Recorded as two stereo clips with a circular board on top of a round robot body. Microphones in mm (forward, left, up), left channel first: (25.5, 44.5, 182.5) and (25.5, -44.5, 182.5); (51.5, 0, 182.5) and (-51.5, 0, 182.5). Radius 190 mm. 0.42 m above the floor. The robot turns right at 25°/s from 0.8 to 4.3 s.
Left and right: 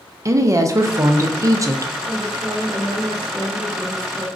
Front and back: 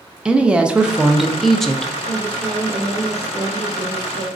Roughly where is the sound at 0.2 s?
Right.